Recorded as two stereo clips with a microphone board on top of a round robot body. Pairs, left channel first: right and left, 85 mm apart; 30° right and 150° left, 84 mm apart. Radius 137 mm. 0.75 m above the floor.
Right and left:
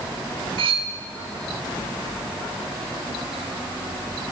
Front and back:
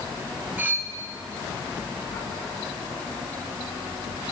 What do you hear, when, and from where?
0.6 s cutlery clinking: 80° left, 0.6 m